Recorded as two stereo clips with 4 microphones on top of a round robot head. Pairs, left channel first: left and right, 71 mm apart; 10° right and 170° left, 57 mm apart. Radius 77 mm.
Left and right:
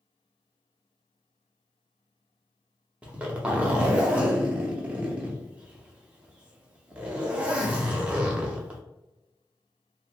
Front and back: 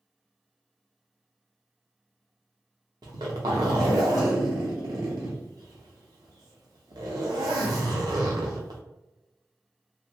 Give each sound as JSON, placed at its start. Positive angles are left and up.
{"t": 3.0, "sound": "a zipper", "azimuth_deg": -160, "distance_m": 0.6}